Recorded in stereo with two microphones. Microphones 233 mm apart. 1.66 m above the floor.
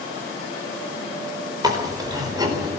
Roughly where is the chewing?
Centre.